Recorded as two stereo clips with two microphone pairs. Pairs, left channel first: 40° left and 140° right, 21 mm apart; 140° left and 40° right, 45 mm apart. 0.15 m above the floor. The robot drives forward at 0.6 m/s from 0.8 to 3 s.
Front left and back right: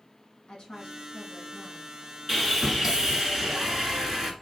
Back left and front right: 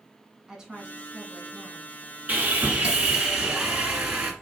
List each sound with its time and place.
0.5 s a woman speaking: 25° left, 1.8 m; by 1.9 s 45° left, 1.5 m
2.3 s sawing: 75° right, 1.2 m; by 4.3 s 105° right, 1.2 m